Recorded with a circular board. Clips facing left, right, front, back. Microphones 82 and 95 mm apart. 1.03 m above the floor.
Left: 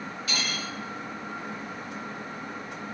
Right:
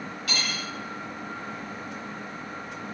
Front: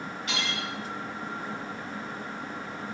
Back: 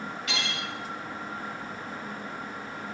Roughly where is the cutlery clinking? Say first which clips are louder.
Right 1 dB, front 2 dB; ahead right.